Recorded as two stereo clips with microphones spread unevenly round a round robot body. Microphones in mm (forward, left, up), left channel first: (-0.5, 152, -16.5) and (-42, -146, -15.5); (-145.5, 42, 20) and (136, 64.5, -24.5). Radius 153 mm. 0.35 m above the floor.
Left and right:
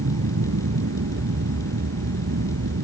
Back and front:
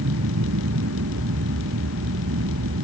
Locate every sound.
0.0 s an aircraft: 45° right